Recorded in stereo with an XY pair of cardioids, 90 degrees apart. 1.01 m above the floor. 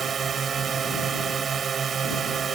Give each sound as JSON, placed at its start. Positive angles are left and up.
{"t": 0.0, "sound": "a drone", "azimuth_deg": -55}